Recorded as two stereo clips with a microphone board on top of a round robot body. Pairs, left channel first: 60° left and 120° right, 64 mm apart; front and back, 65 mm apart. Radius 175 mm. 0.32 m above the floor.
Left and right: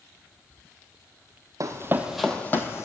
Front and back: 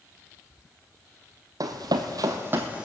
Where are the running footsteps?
155° right, 0.8 m; by 2.9 s 105° left, 1.0 m.